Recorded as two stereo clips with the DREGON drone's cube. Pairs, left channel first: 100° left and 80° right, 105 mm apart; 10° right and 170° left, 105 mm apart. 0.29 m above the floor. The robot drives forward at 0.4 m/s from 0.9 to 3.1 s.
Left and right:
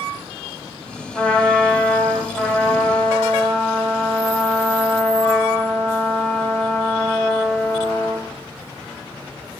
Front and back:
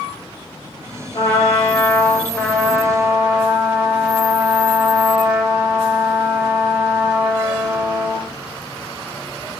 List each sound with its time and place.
1.1 s a trumpet: 15° left, 0.8 m; by 8.3 s 145° left, 0.6 m